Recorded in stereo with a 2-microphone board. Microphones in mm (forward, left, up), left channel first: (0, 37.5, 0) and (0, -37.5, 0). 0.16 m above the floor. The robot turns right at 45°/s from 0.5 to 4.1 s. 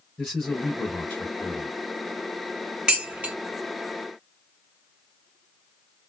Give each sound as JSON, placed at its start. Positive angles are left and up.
{"t": 0.2, "sound": "a man speaking", "azimuth_deg": 10, "distance_m": 2.0}
{"t": 2.9, "sound": "dishes clattering", "side_deg": -10, "distance_m": 1.3}